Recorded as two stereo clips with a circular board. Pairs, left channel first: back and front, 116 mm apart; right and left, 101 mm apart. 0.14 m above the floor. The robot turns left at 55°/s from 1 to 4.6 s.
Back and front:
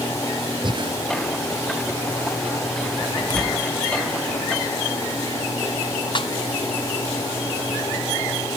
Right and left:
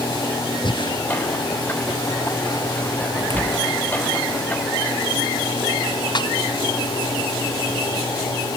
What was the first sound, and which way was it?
Breathing, 50° right.